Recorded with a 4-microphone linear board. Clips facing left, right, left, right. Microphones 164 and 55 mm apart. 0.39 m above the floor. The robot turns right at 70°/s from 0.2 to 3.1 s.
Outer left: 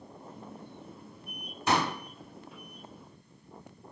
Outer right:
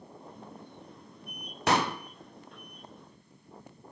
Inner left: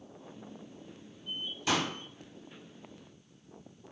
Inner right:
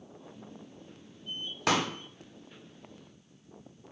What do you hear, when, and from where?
1.7 s a pop: 75° right (ahead or behind), 0.5 m; by 1.9 s 65° right (ahead or behind), 0.5 m